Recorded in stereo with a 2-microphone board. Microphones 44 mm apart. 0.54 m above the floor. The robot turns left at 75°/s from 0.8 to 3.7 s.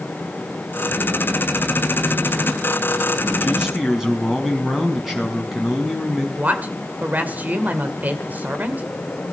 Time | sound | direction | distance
3.4 | a man speaking | 30° right (ahead or behind) | 5.5 m
6.4 | a woman speaking | 40° right (ahead or behind) | 2.5 m